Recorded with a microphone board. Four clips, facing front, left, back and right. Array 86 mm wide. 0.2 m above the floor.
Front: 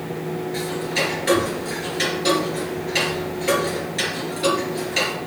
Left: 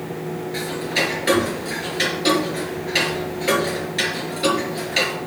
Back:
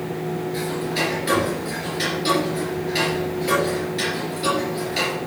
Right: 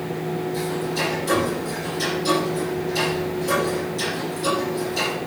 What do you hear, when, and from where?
0.5 s ticking: 75° left, 3.5 m